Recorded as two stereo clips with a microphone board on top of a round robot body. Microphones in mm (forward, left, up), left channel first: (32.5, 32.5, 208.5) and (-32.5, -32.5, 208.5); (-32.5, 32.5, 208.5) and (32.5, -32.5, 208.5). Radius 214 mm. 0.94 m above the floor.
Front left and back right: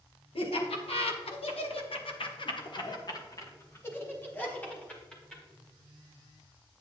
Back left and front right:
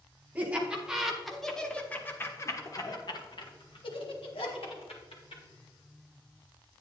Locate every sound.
0.3 s laughter: 30° left, 1.7 m; by 5.4 s 125° left, 2 m